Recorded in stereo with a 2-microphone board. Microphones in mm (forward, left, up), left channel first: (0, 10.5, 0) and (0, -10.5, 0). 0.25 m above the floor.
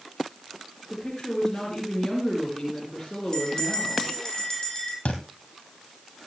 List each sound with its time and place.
0.9 s a woman speaking: 15° left (ahead or behind), 5 m
3.3 s a bell: 30° left (ahead or behind), 9.5 m
5.0 s a thud: 80° left, 3 m